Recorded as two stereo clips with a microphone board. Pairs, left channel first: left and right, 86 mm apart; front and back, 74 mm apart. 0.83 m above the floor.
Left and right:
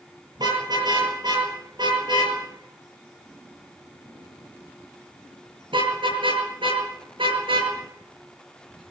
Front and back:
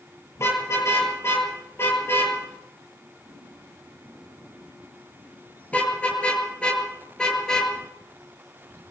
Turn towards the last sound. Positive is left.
turn(degrees=-80)